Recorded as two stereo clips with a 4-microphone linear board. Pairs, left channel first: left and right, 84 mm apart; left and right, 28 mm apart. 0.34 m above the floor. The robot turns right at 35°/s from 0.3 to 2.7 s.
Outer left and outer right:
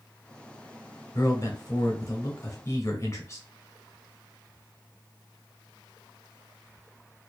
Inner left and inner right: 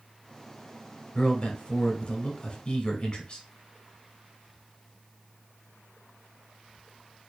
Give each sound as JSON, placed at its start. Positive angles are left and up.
{"t": 1.1, "sound": "a man speaking", "azimuth_deg": 65, "distance_m": 1.2}